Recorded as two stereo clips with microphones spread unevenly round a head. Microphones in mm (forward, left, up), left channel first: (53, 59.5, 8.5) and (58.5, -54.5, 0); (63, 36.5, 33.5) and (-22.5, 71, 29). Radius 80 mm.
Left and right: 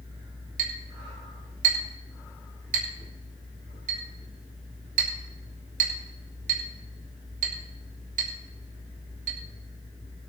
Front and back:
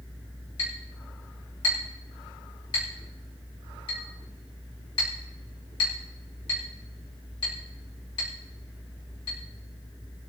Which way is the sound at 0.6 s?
85° right.